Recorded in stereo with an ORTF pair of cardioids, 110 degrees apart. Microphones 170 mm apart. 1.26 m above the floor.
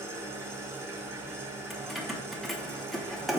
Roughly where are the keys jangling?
Ahead.